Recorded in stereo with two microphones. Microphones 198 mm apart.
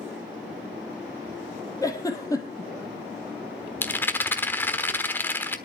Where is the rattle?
10° left (ahead or behind), 1.0 m.